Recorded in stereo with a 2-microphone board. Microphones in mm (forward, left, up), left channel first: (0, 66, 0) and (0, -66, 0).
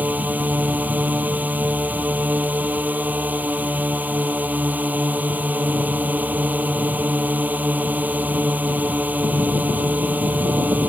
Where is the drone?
10° right (ahead or behind).